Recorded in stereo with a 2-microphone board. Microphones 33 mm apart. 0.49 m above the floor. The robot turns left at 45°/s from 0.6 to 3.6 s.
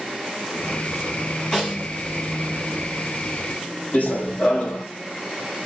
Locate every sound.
1.5 s a snare drum: 10° left (ahead or behind), 4 m; by 1.9 s 25° left (ahead or behind), 4 m
3.9 s running footsteps: 60° left (ahead or behind), 1.0 m